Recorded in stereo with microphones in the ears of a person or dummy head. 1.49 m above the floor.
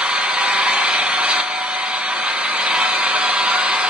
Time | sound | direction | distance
0.0 | an engine running | 10° right (ahead or behind) | 1.1 m